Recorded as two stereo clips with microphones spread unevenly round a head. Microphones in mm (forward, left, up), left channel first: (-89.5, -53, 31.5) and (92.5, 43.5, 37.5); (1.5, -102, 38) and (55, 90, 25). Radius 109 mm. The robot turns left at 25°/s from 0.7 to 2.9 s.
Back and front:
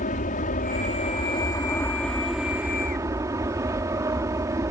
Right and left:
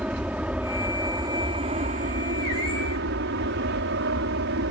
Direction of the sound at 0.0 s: 155° left.